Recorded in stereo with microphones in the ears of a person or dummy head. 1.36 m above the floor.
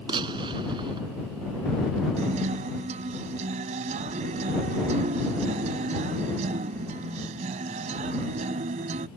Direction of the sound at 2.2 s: 40° right (ahead or behind).